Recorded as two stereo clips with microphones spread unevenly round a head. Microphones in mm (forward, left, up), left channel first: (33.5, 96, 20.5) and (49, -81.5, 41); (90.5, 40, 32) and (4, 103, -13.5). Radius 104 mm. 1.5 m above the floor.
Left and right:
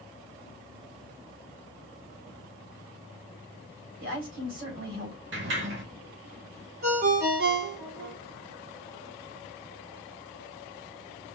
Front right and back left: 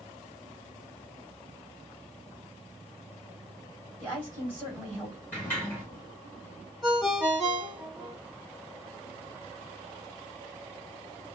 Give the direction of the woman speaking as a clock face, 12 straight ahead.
4 o'clock.